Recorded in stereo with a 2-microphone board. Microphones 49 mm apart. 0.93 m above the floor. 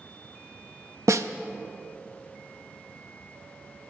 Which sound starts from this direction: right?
A snare drum, at 1.1 s.